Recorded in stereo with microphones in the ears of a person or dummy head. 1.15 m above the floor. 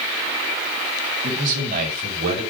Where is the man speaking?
40° right (ahead or behind), 4.5 m; by 2.4 s 55° right (ahead or behind), 5.5 m.